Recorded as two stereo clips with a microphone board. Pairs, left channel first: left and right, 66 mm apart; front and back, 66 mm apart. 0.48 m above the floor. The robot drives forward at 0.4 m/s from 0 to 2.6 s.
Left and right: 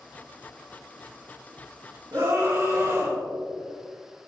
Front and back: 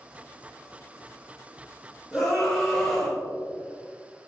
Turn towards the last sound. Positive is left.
turn(degrees=-85)